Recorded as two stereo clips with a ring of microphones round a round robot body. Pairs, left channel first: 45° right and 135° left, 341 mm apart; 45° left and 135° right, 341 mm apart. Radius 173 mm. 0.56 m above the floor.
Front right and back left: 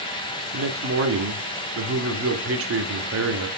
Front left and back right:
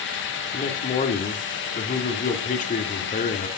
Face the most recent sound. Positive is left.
turn(degrees=105)